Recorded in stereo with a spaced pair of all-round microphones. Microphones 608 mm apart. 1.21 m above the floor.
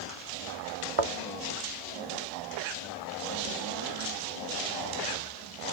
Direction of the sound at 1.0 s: 65° right (ahead or behind).